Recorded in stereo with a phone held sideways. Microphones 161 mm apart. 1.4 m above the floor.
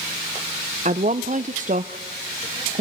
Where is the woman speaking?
50° right (ahead or behind), 0.6 m.